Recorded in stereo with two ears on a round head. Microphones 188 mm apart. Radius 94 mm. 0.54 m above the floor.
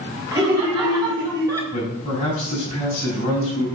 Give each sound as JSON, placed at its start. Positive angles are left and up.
{"t": 0.3, "sound": "laughter", "side_deg": -25, "distance_m": 3.5}
{"t": 1.7, "sound": "a man speaking", "side_deg": 30, "distance_m": 4.5}